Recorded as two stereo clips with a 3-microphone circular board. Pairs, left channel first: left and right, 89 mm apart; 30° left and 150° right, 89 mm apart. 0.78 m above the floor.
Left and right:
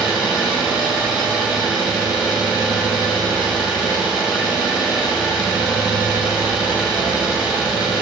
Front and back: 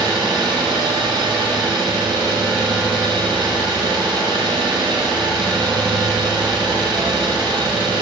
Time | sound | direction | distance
0.0 | an engine running | 170° right | 2.5 m